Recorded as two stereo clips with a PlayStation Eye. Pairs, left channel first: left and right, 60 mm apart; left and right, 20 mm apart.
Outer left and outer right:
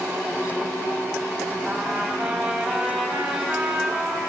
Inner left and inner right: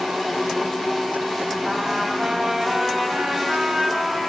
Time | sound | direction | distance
1.6 | a trumpet | 5° right (ahead or behind) | 5.5 m